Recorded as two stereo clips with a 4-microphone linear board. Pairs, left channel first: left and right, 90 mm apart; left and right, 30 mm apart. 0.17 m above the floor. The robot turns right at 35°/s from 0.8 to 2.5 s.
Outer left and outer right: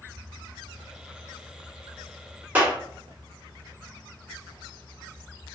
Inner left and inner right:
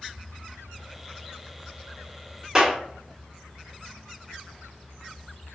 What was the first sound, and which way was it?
A clap, 20° right (ahead or behind).